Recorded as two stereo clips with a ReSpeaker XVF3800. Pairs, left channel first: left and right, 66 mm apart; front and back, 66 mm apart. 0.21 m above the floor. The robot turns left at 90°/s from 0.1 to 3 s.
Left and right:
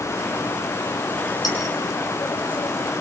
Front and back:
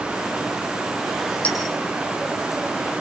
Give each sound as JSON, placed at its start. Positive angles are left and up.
{"t": 1.4, "sound": "a clink", "azimuth_deg": 70, "distance_m": 6.0}